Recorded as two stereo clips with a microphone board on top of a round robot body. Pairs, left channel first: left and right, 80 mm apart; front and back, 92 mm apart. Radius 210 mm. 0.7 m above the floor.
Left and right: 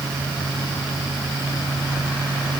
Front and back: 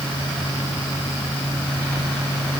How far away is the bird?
I don't hear a bird.